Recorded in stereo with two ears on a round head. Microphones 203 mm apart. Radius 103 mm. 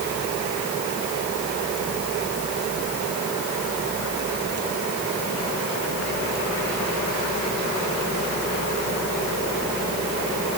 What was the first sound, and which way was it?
Only background noise.